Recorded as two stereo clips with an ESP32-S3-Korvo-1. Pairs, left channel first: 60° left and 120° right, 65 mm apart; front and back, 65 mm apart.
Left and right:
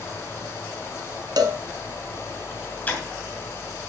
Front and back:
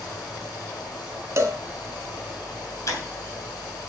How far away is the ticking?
About 2.5 m.